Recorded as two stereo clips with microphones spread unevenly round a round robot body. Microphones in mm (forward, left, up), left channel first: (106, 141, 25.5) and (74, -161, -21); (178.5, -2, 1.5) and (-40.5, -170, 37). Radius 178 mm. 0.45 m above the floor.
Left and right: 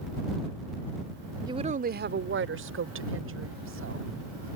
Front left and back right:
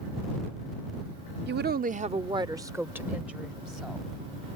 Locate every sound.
1.5 s a woman speaking: 140° right; by 4.6 s 50° right